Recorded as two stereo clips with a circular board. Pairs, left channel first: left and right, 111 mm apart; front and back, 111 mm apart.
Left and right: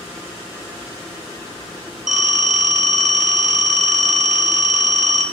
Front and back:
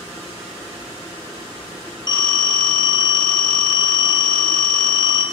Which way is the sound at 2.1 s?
5° right.